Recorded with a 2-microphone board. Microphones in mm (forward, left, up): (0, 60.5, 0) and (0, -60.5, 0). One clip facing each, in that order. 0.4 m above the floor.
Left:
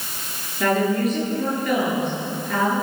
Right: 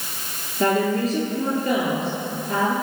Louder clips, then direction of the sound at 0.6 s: Even; 30° right (ahead or behind).